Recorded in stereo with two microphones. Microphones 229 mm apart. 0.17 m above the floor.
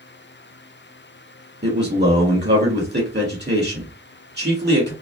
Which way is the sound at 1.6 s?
50° right (ahead or behind).